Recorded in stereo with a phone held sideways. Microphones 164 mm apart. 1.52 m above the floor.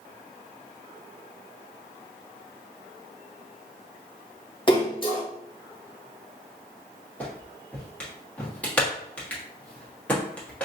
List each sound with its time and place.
4.7 s a splash: 30° left (ahead or behind), 1.3 m
7.2 s a clap: 10° left (ahead or behind), 1.3 m